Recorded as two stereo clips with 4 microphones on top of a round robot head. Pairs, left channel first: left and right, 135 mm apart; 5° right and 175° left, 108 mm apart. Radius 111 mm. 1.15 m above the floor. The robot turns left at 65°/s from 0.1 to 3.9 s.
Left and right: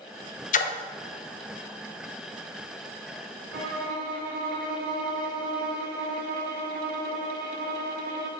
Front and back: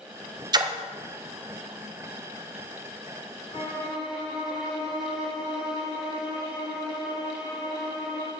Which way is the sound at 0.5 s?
120° left.